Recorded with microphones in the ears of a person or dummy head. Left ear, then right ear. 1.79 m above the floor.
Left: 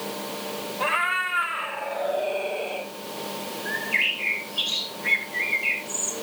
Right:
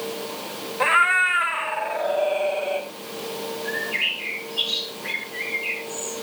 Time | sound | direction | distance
0.8 | a cat meowing | 40° right (ahead or behind) | 1.5 m
3.6 | a bird | 10° left (ahead or behind) | 3 m